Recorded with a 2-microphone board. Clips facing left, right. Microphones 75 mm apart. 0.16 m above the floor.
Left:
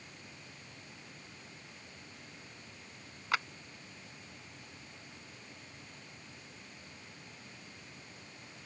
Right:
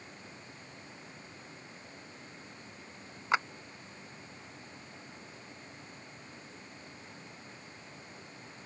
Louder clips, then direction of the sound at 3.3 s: Right 4 dB; 25° right (ahead or behind).